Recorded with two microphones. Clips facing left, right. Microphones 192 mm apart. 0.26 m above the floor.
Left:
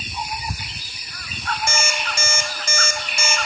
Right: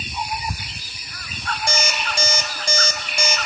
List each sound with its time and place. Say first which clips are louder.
1.7 s an alarm clock: right 1 dB; 35° right (ahead or behind), 0.7 m